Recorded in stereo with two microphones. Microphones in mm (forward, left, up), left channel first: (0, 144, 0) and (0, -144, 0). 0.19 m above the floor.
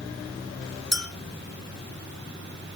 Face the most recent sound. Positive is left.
turn(degrees=60)  # may be behind; listen again after turning